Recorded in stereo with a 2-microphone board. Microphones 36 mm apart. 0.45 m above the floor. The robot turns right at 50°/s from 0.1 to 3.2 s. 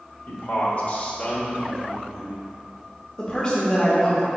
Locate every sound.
0.3 s a man speaking: 85° left, 1.4 m; by 2.4 s 165° right, 1.4 m
3.2 s a woman speaking: 20° left (ahead or behind), 1.0 m